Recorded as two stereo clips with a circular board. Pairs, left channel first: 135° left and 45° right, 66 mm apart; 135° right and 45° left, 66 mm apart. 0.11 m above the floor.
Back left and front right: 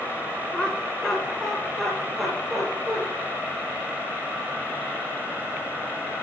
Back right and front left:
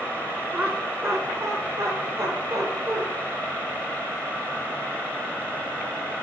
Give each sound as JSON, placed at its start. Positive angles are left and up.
{"t": 0.5, "sound": "laughter", "azimuth_deg": 70, "distance_m": 1.6}